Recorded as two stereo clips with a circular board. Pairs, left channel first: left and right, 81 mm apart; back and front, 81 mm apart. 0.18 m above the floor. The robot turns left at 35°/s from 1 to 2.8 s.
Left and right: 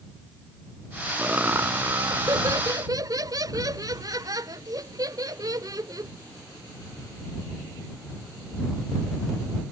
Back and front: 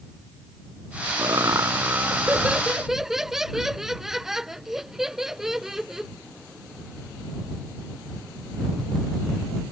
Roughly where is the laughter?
Ahead right.